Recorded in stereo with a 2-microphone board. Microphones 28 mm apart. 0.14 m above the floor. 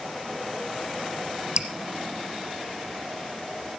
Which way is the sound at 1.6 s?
35° right (ahead or behind).